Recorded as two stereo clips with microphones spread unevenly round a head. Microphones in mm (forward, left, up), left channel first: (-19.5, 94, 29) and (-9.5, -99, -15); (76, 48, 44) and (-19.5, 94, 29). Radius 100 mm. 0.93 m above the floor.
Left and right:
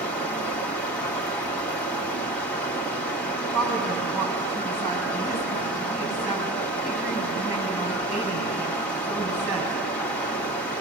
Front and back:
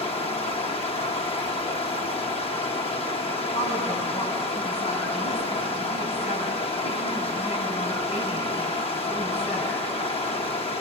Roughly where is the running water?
Ahead.